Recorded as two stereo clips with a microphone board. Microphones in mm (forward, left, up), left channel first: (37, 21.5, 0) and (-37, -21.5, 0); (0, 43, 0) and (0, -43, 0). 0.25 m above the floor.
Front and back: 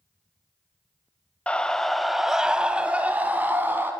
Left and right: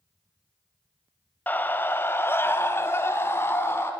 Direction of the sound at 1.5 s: 80° left.